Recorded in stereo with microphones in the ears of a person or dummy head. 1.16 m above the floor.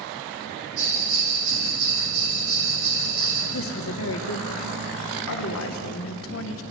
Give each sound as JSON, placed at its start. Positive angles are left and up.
{"t": 0.8, "sound": "a bell", "side_deg": -70, "distance_m": 3.5}
{"t": 3.5, "sound": "a woman speaking", "side_deg": 70, "distance_m": 0.8}